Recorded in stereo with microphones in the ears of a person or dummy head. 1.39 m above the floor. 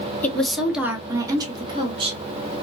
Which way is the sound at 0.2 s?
10° left (ahead or behind).